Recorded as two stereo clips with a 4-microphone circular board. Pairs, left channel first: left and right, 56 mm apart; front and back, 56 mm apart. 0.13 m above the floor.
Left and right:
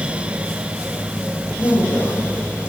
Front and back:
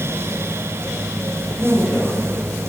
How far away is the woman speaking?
About 6.5 m.